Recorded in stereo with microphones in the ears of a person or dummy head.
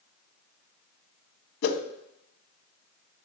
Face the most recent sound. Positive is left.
turn(degrees=60)  # may be behind; listen again after turning